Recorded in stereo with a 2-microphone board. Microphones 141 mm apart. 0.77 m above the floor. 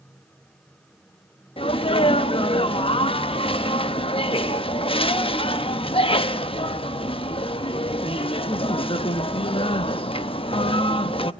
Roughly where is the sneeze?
Left.